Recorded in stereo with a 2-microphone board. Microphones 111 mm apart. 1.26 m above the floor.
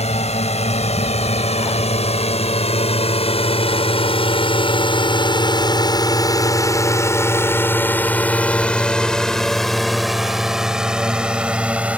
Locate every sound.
0.0 s a drone: 80° left; by 12.0 s 15° right (ahead or behind)